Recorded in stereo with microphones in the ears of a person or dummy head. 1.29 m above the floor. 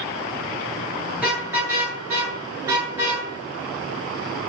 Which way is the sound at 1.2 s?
5° right (ahead or behind).